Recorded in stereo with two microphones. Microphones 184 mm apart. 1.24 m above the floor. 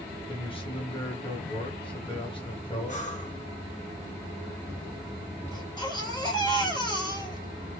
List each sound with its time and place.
0.3 s a man speaking: 25° left (ahead or behind), 1.4 m
2.9 s breathing: 40° left (ahead or behind), 1.4 m
5.5 s a baby crying: 20° left (ahead or behind), 2.5 m